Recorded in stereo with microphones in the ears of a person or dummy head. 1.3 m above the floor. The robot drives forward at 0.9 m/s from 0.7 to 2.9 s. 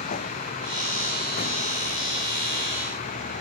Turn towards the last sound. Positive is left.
turn(degrees=50)  # may be behind; listen again after turning